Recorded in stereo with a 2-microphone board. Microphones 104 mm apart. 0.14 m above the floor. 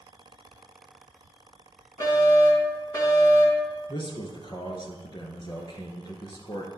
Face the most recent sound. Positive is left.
turn(degrees=50)  # may be behind; listen again after turning